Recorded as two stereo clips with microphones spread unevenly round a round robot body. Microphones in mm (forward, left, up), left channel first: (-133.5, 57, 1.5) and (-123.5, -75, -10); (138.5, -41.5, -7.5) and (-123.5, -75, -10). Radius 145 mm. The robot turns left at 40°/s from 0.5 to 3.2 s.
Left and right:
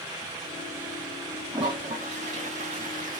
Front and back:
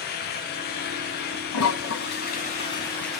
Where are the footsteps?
I don't hear footsteps.